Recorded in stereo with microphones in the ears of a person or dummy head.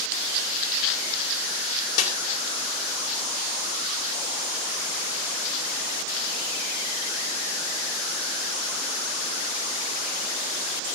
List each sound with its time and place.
2.0 s a snare drum: 65° left (ahead or behind), 3 m